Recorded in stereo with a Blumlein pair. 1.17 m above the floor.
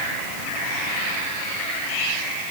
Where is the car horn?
No car horn in this recording.